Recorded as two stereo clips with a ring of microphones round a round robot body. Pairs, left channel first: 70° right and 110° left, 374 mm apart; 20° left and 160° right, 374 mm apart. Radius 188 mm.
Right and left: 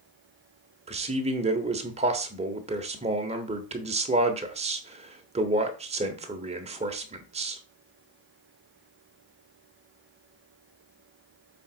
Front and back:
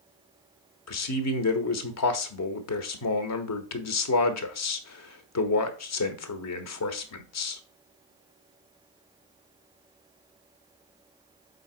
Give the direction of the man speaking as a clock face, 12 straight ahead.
10 o'clock.